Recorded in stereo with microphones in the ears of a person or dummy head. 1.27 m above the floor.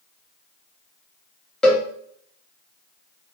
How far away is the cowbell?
About 1.3 m.